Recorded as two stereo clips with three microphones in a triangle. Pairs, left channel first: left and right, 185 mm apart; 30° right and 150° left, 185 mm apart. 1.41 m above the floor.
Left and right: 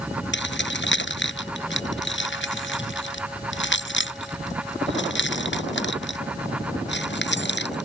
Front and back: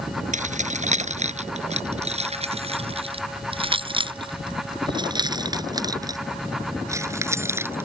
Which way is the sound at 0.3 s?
100° left.